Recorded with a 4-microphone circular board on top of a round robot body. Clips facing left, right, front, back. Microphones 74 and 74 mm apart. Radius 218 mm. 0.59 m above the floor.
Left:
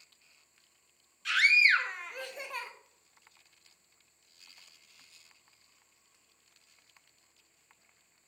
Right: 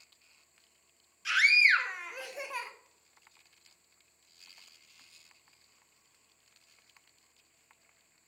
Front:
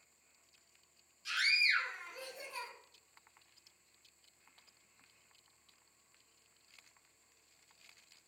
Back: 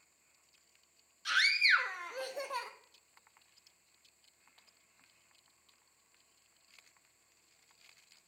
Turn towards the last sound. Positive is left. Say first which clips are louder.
# even, back 5 dB
turn(degrees=-175)